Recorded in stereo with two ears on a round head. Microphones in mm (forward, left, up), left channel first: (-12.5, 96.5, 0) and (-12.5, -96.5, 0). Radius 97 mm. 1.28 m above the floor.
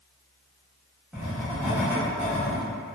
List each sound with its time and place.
1.1 s writing: 5° right (ahead or behind), 0.9 m